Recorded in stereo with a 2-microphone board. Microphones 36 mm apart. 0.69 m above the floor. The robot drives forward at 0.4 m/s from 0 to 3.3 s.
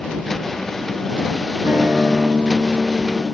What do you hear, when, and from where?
1.6 s a guitar: 65° right (ahead or behind), 3 m; by 3.2 s 55° right (ahead or behind), 3.5 m